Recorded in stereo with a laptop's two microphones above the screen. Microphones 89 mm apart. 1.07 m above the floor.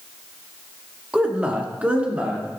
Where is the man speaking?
10° right (ahead or behind), 1.3 m; by 2.6 s 15° right (ahead or behind), 2.5 m.